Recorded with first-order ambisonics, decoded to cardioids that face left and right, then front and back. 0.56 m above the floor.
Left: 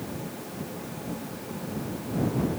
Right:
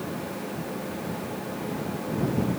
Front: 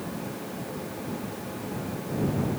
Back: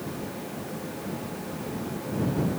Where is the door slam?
I don't hear a door slam.